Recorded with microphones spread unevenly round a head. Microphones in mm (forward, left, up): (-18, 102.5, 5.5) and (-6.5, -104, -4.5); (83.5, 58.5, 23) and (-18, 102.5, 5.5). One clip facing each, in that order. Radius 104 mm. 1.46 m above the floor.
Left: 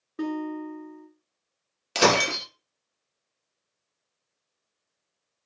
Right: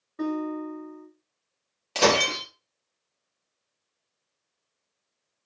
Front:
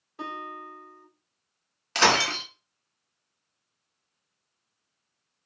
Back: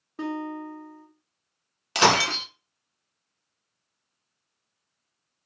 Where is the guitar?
125° left, 1.4 m.